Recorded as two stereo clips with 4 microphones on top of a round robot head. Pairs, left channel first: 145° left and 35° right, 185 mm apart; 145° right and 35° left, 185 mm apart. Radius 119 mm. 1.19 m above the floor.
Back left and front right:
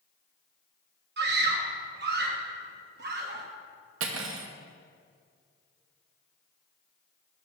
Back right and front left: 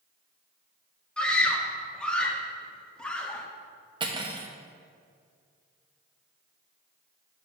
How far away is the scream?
About 1.4 m.